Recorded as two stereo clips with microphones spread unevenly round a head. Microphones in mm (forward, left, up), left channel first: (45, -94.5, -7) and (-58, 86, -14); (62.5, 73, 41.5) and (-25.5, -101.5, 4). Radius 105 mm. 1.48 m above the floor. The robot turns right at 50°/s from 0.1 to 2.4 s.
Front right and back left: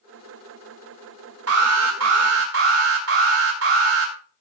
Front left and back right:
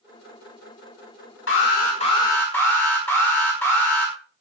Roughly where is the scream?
I don't hear a scream.